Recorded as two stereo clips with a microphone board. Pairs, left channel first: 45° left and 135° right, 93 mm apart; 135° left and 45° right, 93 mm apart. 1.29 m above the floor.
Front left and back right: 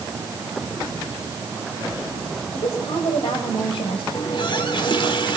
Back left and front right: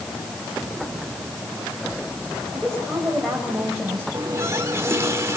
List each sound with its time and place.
2.5 s a woman speaking: 50° left, 6.5 m; by 4.0 s 40° left, 7 m
4.1 s a running tap: 15° left, 3 m